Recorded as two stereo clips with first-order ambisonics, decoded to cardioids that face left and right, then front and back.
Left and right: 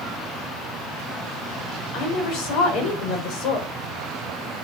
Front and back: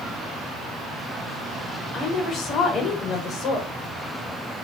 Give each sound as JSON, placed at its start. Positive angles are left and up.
{"t": 1.9, "sound": "a woman speaking", "azimuth_deg": 55, "distance_m": 4.0}